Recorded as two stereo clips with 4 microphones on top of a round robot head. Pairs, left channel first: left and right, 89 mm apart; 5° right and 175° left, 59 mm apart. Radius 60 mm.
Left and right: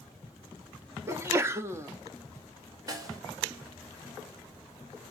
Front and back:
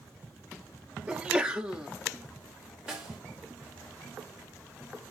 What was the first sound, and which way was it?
A sneeze, 125° right.